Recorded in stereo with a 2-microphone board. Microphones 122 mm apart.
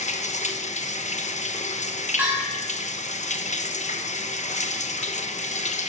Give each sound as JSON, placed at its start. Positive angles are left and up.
{"t": 0.0, "sound": "running water", "side_deg": 75, "distance_m": 1.0}
{"t": 2.2, "sound": "a bell", "side_deg": -15, "distance_m": 6.0}